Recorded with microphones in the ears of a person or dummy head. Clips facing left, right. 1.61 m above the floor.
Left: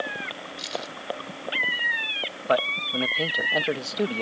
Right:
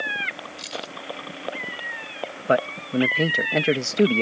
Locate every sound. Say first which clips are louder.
0.6 s keys jangling: left 2 dB; 5° right (ahead or behind)
2.5 s a man speaking: right 3 dB; 25° right (ahead or behind)